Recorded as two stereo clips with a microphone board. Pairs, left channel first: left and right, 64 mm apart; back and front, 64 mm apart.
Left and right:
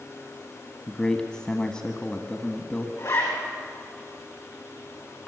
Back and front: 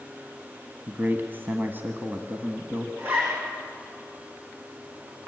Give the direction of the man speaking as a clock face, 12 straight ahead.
11 o'clock.